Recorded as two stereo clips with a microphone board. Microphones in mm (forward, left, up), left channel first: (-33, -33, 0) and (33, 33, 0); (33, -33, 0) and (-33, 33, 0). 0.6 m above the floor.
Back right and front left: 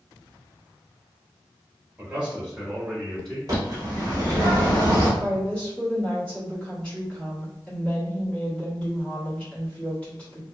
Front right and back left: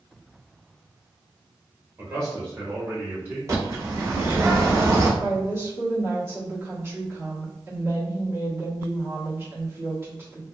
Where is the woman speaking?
165° left, 1.1 m.